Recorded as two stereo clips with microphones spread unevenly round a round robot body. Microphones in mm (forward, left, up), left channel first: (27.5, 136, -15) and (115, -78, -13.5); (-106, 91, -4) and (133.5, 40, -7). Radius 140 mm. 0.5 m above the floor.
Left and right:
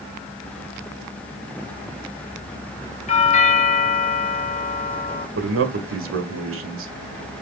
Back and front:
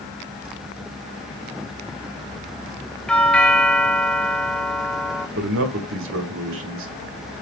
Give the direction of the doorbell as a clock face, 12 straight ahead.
9 o'clock.